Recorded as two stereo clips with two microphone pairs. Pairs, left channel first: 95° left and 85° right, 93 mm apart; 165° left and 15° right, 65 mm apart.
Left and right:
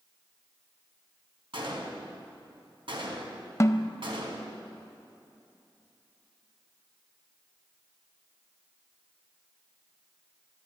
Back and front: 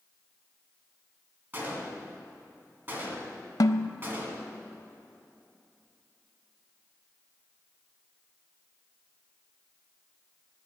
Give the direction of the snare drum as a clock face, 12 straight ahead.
7 o'clock.